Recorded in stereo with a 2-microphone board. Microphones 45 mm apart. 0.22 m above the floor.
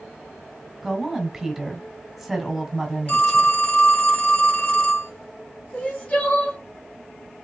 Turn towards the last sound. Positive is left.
turn(degrees=35)  # may be behind; listen again after turning